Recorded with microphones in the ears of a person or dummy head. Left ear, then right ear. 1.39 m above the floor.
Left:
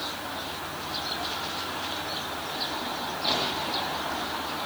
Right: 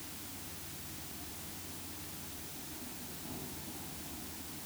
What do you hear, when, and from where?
Only background noise.